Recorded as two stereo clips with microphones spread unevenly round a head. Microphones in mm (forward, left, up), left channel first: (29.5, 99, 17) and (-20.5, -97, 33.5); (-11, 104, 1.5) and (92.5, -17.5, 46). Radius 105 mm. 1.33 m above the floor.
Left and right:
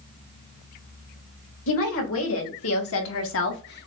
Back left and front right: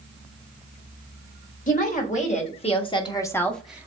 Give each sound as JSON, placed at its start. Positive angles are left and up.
{"t": 1.7, "sound": "a woman speaking", "azimuth_deg": 95, "distance_m": 2.0}